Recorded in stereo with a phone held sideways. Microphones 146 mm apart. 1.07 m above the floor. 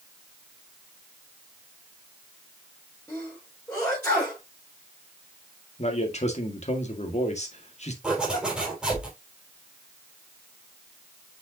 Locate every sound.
3.1 s a sneeze: 10° left (ahead or behind), 4.5 m
5.8 s a man speaking: 50° left (ahead or behind), 1.8 m
8.0 s a zipper: 5° right (ahead or behind), 4 m